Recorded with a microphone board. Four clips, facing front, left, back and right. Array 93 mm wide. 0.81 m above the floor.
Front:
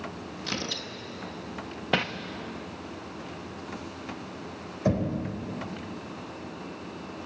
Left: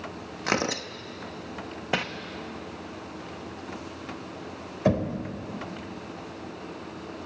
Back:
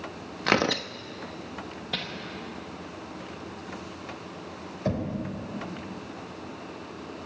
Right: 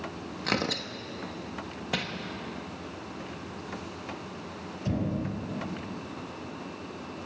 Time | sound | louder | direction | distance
0.5 | tearing paper | left 3 dB, back 12 dB | 160° left | 0.8 m
1.9 | crumpling | left 5 dB, front 10 dB | 35° left | 1.1 m
4.8 | knocking | left 6 dB, front 3 dB | 80° left | 3 m